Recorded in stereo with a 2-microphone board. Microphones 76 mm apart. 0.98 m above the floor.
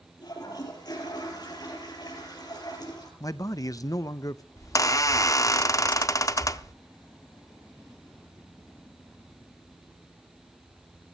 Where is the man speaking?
45° left (ahead or behind), 0.6 m.